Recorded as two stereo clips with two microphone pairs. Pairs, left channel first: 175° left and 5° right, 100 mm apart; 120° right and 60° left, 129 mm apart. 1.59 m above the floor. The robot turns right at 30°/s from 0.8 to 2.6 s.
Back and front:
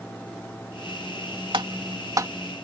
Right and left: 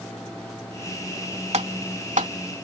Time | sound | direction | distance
1.5 | typing on a keyboard | 30° left | ?